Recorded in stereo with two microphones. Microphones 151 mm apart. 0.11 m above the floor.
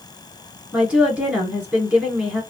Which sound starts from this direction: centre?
A woman speaking, at 0.7 s.